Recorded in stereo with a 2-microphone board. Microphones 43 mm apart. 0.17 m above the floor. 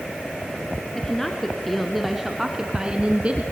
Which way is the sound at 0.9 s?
15° left (ahead or behind).